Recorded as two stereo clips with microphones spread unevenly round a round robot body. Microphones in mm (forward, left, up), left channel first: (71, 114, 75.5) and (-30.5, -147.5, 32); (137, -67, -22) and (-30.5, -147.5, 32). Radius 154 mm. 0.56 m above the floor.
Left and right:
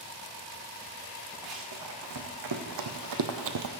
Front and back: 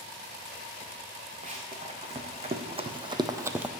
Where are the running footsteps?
105° right, 3 m; by 3.7 s 85° right, 0.8 m.